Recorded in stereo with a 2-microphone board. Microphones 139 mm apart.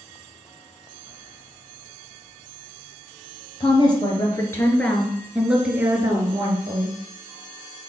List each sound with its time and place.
3.6 s a woman speaking: 35° left (ahead or behind), 3 m; by 7.0 s 40° right (ahead or behind), 3 m